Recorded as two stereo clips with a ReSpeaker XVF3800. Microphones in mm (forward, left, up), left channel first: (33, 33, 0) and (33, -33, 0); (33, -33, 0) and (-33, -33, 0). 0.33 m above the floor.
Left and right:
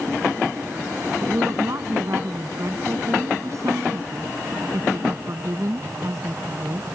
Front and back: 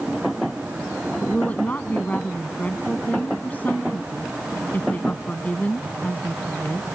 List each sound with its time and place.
1.2 s a woman speaking: 65° right